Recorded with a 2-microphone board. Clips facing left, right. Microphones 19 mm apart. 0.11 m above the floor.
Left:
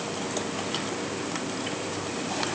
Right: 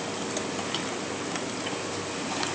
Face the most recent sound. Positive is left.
No sound to turn to.